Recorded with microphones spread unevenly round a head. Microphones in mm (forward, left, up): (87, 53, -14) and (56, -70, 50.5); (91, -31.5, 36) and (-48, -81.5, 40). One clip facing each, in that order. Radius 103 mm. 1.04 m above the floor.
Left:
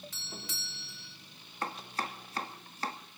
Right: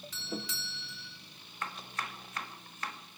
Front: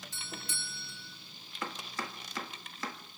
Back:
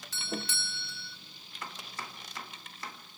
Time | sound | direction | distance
0.1 | a doorbell | 145° right | 1.6 m
1.6 | chopping | 25° left | 1.4 m